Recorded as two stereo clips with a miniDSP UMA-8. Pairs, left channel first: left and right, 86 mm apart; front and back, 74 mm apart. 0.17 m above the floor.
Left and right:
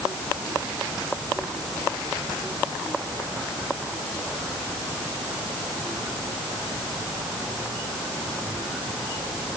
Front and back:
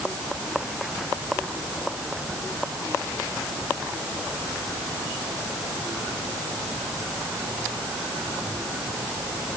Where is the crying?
I don't hear crying.